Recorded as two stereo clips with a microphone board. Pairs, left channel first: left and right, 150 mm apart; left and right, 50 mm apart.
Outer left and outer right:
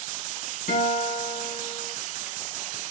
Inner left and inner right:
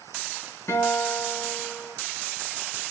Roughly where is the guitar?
Left.